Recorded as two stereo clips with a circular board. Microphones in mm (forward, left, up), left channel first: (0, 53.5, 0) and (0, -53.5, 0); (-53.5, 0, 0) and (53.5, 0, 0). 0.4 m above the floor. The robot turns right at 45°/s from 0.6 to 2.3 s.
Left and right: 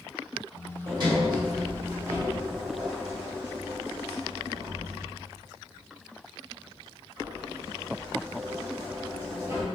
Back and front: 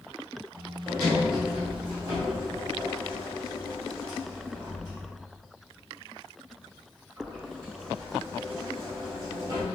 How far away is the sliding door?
About 1.6 m.